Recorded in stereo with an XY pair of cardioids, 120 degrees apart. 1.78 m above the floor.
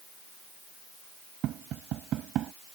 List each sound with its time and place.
1.4 s tapping: 65° right